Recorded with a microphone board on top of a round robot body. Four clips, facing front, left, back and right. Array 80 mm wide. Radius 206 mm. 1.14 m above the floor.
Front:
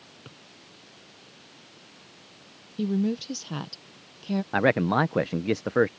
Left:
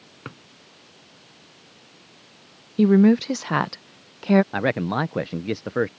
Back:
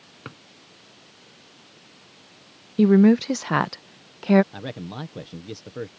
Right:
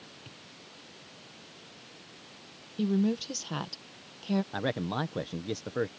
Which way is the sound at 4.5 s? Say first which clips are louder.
Left 8 dB, front 13 dB; 25° left.